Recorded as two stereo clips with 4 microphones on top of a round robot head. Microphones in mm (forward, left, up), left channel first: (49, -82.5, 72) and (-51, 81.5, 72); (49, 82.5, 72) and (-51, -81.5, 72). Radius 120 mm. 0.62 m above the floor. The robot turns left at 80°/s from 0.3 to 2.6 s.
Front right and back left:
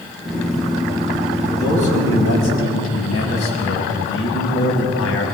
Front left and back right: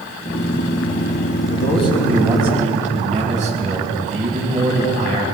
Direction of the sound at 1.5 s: 25° left.